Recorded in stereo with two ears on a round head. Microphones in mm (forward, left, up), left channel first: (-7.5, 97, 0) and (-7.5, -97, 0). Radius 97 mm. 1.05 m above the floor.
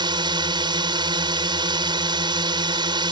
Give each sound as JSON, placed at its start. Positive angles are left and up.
{"t": 0.0, "sound": "a drone", "side_deg": -25}